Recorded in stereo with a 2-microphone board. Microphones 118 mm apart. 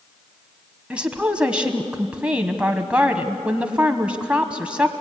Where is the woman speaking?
10° right (ahead or behind), 1.2 m.